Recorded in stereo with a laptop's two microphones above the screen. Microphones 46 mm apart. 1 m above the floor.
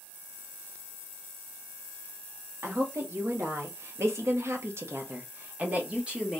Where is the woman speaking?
65° right (ahead or behind), 1.6 m; by 6.4 s 15° right (ahead or behind), 1.0 m.